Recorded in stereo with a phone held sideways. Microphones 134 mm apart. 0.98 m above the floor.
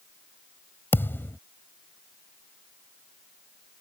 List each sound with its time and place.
0.9 s a thud: 15° left (ahead or behind)